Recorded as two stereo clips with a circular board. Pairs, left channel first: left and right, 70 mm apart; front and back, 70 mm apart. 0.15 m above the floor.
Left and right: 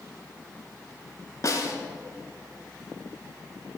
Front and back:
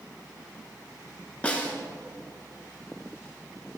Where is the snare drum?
65° left, 1.5 m.